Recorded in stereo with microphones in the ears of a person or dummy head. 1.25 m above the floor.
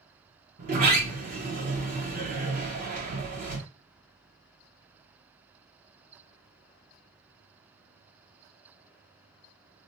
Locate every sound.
0.6 s a sliding door: 50° right (ahead or behind), 0.8 m